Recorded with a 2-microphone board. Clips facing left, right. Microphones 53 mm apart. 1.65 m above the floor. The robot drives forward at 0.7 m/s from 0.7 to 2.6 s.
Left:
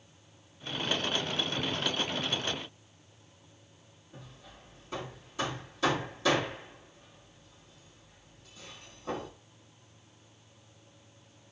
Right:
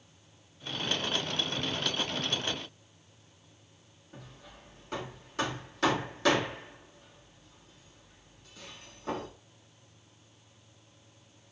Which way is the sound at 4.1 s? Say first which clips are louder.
Right 1 dB; 60° right (ahead or behind).